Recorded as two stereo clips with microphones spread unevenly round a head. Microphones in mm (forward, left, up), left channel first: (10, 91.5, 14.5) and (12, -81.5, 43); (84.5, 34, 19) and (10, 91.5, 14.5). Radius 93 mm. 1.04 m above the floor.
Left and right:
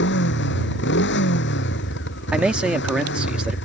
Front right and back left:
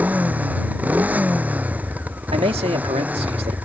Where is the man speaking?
175° right.